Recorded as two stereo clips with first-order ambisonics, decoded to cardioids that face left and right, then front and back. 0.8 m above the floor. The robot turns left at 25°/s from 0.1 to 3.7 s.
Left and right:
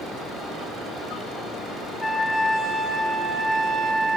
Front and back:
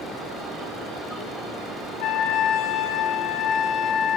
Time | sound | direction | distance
2.0 | a trumpet | 10° left | 2 m